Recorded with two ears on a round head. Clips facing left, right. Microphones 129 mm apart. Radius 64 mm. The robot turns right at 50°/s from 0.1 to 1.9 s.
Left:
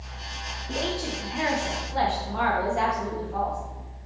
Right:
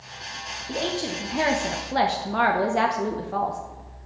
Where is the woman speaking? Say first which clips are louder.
Right 2 dB; 170° right, 0.6 m; by 3.6 s 105° right, 0.6 m.